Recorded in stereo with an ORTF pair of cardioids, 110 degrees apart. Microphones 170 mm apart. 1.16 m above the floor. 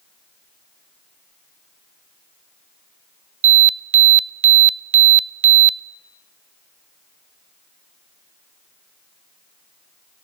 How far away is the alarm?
About 0.6 m.